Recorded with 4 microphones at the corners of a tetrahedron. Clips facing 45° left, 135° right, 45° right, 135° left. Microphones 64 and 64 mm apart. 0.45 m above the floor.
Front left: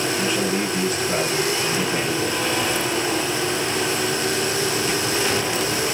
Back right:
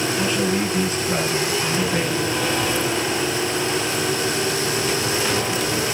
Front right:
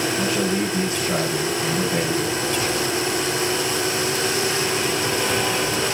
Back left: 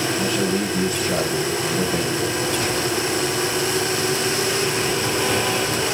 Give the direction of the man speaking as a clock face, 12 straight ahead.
2 o'clock.